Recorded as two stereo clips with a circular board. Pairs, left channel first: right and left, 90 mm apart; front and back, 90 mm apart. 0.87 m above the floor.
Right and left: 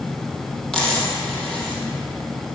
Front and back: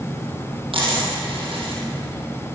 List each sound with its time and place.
0.7 s a dropped coin: 175° right, 4 m